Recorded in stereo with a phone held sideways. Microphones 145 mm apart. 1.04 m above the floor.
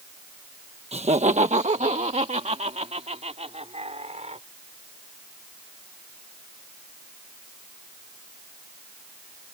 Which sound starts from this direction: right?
Laughter, at 0.9 s.